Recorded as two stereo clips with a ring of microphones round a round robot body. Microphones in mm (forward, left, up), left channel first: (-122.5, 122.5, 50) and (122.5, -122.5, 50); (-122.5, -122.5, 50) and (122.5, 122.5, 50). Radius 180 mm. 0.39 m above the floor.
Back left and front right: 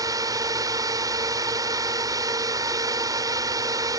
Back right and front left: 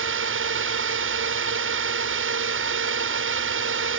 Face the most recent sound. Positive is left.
turn(degrees=30)